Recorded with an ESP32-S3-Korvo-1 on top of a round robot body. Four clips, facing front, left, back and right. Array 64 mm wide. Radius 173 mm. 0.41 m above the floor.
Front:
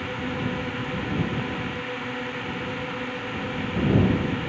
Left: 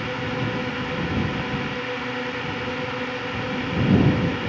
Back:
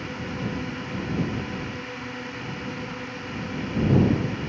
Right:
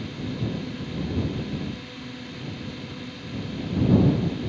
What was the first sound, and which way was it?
A drone, 70° left.